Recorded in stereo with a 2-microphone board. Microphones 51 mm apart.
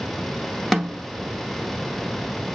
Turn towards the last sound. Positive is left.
turn(degrees=5)  # may be behind; listen again after turning